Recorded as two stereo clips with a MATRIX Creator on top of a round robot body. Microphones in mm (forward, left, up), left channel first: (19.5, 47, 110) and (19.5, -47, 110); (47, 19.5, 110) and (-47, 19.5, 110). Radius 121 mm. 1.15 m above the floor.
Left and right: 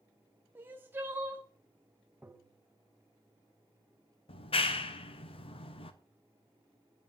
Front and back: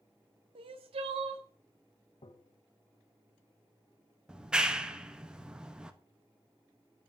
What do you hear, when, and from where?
0.6 s crying: 160° right, 1.2 m
2.2 s tapping: 20° right, 1.5 m
4.3 s a clap: 100° left, 1.6 m